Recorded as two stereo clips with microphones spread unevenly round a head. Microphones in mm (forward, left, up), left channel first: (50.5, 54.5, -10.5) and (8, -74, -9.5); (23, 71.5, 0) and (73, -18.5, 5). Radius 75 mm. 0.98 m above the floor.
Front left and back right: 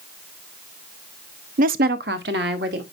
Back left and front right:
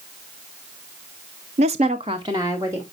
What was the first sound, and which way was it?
A woman speaking, 85° right.